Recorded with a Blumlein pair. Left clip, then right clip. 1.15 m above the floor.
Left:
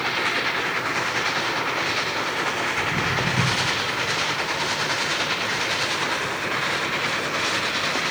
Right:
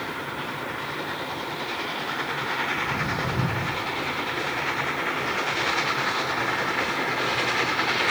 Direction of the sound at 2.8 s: 10° left.